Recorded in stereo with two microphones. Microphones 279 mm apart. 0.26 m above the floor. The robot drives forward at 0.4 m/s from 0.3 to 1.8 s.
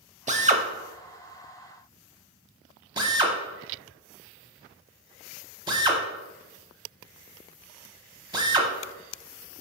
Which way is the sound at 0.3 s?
25° right (ahead or behind).